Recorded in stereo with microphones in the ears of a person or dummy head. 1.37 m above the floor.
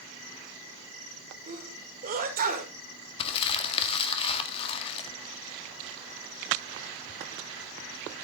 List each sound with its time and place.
1.5 s a sneeze: 45° right (ahead or behind), 2 m
3.2 s crumpling: 30° left (ahead or behind), 1.8 m